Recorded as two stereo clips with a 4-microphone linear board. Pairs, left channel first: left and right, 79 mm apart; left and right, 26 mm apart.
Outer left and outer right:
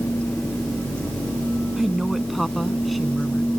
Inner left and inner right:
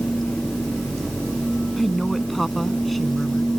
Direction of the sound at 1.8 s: 5° right (ahead or behind).